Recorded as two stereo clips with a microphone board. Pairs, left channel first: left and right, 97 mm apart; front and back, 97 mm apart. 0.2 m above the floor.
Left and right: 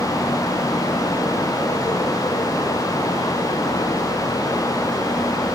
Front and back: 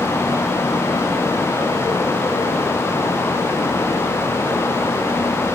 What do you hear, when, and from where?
Only background noise.